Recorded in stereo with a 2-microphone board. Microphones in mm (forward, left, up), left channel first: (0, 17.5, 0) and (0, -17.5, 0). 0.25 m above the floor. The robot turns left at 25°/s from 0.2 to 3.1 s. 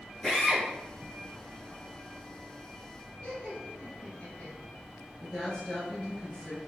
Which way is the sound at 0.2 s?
5° left (ahead or behind).